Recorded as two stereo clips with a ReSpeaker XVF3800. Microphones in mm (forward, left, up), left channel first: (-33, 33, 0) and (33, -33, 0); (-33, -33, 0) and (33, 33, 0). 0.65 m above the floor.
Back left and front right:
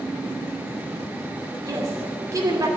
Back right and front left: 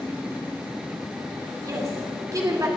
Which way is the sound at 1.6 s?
Straight ahead.